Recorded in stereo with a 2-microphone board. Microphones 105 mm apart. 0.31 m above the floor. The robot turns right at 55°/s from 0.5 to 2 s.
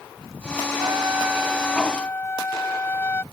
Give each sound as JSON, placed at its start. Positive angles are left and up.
{"t": 0.8, "sound": "a trumpet", "azimuth_deg": -45}